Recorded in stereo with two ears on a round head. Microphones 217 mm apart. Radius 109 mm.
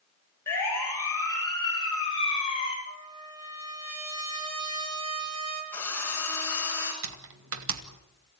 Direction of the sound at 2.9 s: 70° right (ahead or behind).